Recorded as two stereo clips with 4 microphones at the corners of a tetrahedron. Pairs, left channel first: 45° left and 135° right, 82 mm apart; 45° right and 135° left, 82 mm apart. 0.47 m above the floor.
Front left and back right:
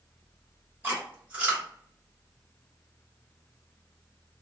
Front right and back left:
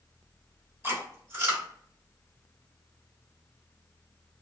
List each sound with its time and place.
0.8 s chewing: 170° left, 1.6 m